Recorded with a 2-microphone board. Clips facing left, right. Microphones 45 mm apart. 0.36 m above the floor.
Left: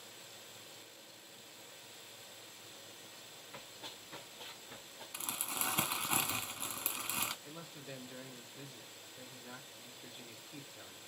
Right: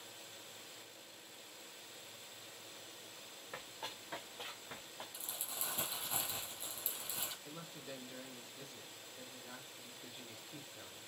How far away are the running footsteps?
About 2.5 m.